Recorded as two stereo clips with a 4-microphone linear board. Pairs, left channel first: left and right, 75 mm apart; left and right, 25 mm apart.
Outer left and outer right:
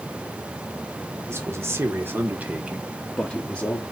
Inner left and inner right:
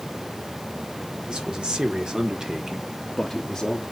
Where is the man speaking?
40° right (ahead or behind), 2.5 m; by 3.8 s 25° left (ahead or behind), 1.6 m.